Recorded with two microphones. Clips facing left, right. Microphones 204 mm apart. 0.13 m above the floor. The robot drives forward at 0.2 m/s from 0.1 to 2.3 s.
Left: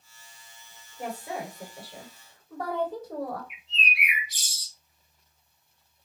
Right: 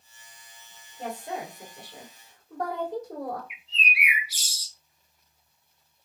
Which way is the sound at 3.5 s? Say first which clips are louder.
Right 1 dB; 10° right (ahead or behind).